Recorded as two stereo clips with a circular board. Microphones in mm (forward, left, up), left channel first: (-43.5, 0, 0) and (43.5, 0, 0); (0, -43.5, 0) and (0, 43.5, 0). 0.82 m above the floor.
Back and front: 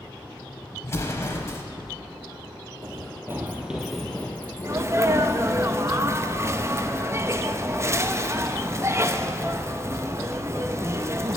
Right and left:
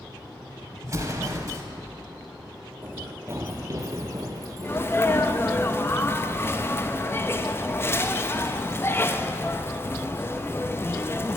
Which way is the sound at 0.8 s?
130° left.